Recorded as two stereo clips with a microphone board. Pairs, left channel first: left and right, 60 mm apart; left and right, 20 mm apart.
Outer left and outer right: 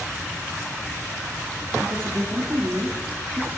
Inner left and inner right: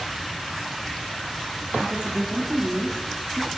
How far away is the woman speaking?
About 1.5 m.